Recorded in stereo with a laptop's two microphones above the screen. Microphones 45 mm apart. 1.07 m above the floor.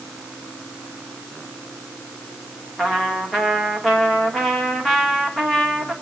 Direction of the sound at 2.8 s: 10° left (ahead or behind).